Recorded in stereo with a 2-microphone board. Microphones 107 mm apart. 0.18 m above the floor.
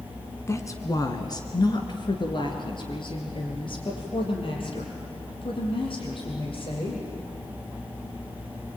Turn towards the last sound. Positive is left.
turn(degrees=55)  # may be behind; listen again after turning